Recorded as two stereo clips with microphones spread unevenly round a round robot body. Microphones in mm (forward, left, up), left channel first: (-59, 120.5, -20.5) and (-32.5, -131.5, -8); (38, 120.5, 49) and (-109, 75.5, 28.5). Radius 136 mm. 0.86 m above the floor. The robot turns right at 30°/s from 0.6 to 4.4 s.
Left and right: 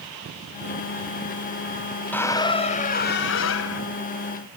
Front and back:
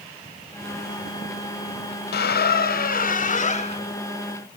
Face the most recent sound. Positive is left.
turn(degrees=80)